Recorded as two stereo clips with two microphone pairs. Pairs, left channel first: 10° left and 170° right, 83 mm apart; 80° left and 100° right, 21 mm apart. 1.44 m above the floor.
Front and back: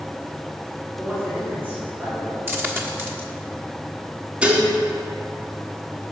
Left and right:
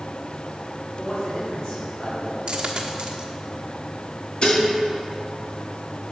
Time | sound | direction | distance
1.0 | a man speaking | 125° left | 4.5 m
2.5 | a dropped coin | 115° right | 1.2 m
4.4 | dishes clattering | 115° left | 1.7 m